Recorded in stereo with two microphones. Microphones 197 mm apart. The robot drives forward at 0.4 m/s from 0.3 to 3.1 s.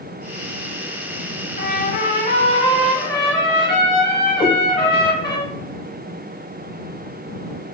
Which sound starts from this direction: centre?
A cat meowing, at 4.4 s.